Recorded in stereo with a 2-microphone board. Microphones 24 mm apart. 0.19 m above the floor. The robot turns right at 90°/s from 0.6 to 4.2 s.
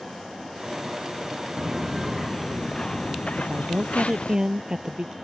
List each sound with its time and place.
1.6 s footsteps: 20° right (ahead or behind); by 4.4 s 55° left (ahead or behind)
3.4 s a woman speaking: 105° right; by 5.2 s 30° right